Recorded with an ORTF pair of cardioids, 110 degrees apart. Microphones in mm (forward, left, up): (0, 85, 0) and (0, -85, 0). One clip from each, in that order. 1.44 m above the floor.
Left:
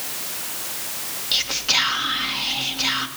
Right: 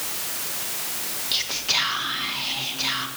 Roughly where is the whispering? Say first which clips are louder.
Left 3 dB; ahead.